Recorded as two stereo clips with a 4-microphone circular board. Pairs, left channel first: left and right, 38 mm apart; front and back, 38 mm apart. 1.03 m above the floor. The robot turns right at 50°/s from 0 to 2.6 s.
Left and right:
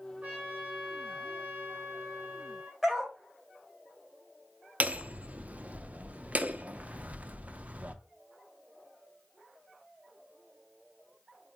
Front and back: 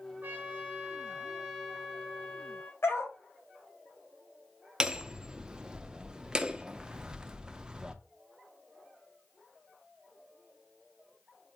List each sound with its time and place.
0.2 s a trumpet: 145° right, 2.5 m; by 2.7 s 25° right, 2.5 m
2.8 s a dog barking: 10° right, 2 m
4.8 s hammering: 120° right, 0.6 m